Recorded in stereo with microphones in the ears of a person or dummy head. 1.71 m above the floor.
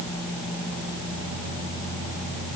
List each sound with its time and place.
Only background noise.